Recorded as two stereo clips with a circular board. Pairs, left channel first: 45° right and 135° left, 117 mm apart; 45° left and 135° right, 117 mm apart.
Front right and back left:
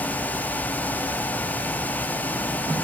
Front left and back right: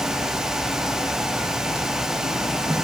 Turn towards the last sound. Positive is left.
No sound to turn to.